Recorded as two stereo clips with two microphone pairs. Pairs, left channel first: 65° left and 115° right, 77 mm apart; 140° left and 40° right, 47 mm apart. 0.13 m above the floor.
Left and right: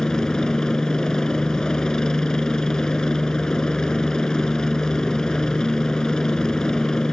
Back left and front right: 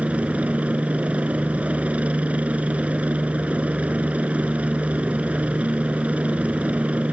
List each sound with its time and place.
0.0 s a helicopter: 5° right